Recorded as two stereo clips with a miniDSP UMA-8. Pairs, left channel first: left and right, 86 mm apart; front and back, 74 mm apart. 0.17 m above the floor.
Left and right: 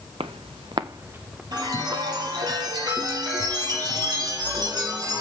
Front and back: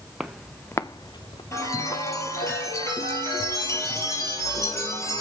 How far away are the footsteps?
About 1.2 m.